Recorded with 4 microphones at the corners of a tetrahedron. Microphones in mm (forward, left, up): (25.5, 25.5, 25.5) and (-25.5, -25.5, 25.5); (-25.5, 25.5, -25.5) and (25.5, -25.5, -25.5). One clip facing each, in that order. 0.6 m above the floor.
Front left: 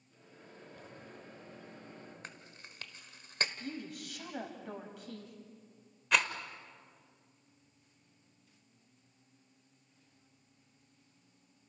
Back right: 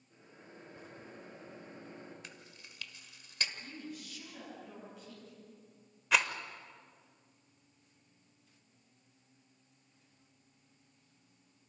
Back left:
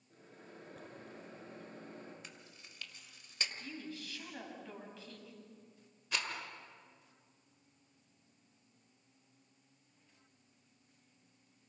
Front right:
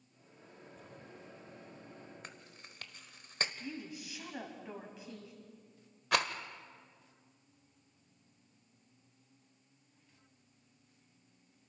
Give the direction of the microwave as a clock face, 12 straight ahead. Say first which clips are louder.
Even, back left 4 dB; 7 o'clock.